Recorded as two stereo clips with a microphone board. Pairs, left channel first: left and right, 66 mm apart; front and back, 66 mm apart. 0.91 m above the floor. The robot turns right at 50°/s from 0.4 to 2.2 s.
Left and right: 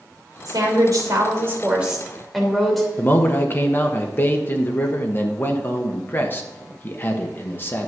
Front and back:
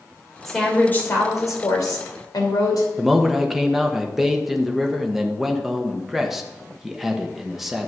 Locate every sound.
0.5 s a woman speaking: 85° right, 3 m; by 2.9 s straight ahead, 3 m
3.0 s a man speaking: 100° left, 1.1 m